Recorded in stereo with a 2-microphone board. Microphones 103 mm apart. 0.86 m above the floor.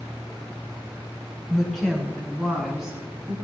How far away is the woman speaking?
About 7 m.